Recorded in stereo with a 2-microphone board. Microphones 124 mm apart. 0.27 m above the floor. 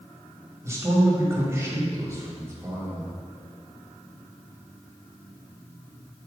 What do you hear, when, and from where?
0.6 s a man speaking: 25° right (ahead or behind), 1.4 m